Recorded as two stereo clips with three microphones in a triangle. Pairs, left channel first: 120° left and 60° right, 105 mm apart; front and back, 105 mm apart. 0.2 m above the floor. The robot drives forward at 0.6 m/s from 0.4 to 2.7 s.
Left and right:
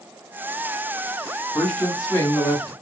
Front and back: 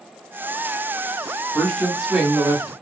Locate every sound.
1.6 s a woman speaking: 60° left, 1.2 m; by 2.7 s 140° left, 1.3 m